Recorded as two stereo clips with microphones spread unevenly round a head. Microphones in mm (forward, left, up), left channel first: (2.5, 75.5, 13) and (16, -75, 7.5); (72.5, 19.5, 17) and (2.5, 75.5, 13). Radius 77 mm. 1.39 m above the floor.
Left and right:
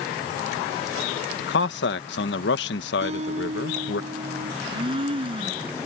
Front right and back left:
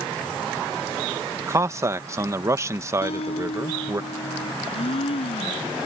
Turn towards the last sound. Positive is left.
turn(degrees=-25)